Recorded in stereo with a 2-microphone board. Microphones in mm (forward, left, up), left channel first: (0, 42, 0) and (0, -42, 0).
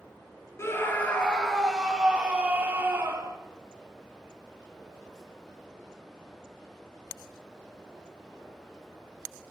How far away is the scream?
About 2 m.